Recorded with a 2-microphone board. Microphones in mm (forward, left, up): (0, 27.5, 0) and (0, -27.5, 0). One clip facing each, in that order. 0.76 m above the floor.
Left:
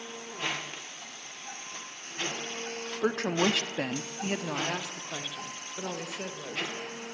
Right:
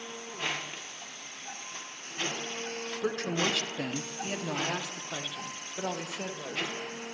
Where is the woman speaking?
55° left (ahead or behind), 1.5 m; by 6.7 s 10° right (ahead or behind), 3.5 m.